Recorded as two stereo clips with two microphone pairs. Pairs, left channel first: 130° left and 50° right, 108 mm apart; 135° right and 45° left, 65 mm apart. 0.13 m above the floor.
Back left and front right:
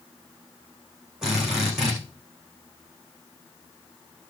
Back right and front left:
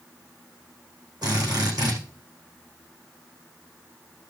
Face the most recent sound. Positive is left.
turn(degrees=35)